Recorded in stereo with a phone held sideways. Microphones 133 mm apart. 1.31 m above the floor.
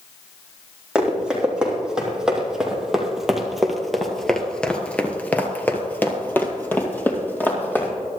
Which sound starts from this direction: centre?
Running footsteps, at 0.9 s.